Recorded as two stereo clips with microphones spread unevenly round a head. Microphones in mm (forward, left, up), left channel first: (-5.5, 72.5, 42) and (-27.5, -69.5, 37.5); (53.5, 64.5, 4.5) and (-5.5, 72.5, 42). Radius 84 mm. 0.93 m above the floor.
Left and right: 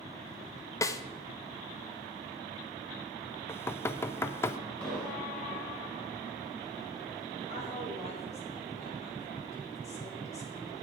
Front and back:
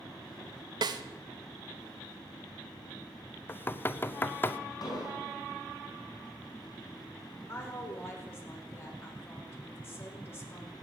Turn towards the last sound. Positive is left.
turn(degrees=35)